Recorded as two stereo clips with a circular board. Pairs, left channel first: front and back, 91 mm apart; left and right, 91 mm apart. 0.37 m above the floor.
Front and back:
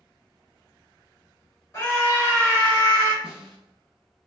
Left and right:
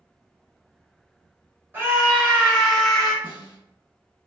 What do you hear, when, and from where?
1.7 s a scream: 40° right, 1.8 m; by 3.1 s 20° left, 1.4 m
3.2 s a snare drum: 100° left, 1.9 m